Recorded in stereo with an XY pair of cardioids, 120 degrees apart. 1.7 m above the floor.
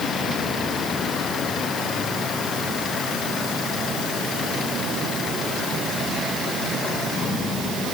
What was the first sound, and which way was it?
Only background noise.